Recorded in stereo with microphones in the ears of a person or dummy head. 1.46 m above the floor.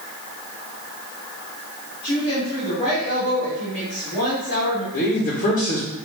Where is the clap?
No clap in this recording.